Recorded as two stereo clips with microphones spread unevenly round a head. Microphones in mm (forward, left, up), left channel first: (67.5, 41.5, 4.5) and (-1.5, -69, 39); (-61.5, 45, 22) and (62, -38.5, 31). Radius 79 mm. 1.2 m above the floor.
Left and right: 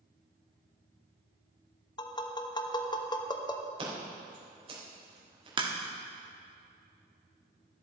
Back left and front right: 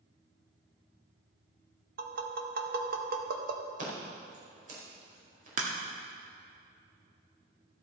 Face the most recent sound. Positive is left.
turn(degrees=-75)